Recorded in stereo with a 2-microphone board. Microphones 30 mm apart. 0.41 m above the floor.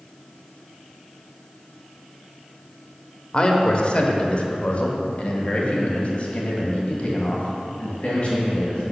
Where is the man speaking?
30° left (ahead or behind), 1.0 m; by 8.9 s 40° left (ahead or behind), 3 m.